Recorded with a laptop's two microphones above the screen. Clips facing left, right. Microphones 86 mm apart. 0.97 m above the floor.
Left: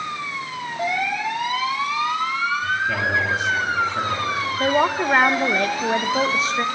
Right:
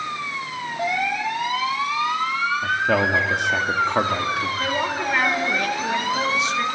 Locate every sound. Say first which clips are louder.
2.6 s a man speaking: right 2 dB; 65° right (ahead or behind), 1.5 m
4.6 s a woman speaking: left 5 dB; 40° left (ahead or behind), 1.2 m